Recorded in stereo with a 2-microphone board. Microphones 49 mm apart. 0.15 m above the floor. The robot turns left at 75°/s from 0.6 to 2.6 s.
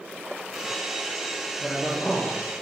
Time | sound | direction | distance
1.6 | a man speaking | 175° right | 2.0 m